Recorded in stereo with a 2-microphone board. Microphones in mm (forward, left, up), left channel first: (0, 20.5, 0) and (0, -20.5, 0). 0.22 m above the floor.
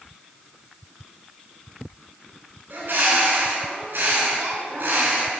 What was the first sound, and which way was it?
A bird, 60° right (ahead or behind).